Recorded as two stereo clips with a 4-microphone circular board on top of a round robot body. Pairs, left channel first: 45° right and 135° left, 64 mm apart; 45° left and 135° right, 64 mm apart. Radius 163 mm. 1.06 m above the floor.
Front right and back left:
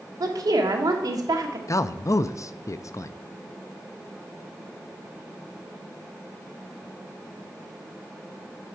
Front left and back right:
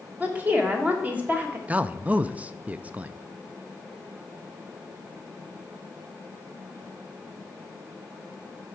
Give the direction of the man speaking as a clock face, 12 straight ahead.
2 o'clock.